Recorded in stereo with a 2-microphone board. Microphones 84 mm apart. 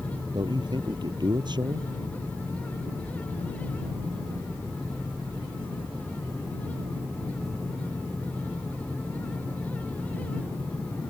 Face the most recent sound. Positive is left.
turn(degrees=-60)  # may be behind; listen again after turning